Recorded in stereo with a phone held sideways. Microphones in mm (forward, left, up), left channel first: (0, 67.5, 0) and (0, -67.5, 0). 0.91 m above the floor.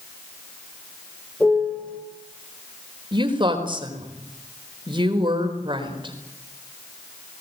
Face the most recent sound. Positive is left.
turn(degrees=-35)  # may be behind; listen again after turning